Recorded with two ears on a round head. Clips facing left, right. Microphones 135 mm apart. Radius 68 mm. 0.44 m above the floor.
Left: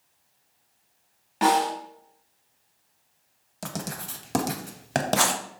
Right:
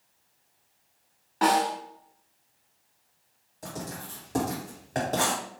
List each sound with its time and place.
1.4 s a snare drum: 25° left (ahead or behind), 1.1 m
3.6 s writing: 75° left (ahead or behind), 0.5 m